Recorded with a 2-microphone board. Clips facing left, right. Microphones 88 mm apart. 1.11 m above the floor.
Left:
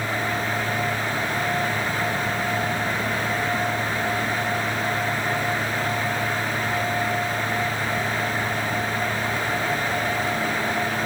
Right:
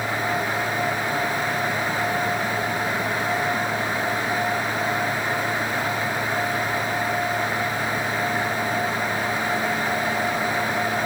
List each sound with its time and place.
Only background noise.